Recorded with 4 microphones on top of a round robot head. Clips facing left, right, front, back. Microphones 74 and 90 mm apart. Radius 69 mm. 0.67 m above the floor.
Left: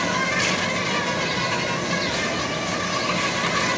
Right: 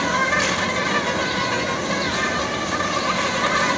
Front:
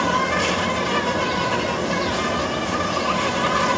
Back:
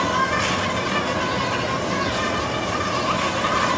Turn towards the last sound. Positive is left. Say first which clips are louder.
# right 3 dB, front 1 dB
turn(degrees=-40)